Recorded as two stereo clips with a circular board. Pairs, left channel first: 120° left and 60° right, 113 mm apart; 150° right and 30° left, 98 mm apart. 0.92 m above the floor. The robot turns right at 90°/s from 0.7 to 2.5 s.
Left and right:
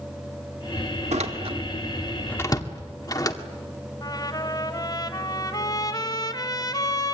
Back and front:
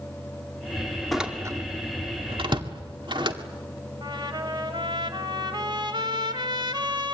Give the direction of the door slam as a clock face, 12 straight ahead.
2 o'clock.